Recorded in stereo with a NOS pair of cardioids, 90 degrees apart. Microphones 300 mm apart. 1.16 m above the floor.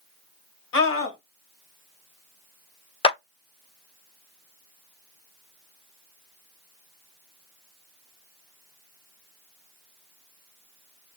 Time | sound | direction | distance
0.7 | a scream | 50° left | 1.6 m
3.0 | a clap | 20° left | 0.6 m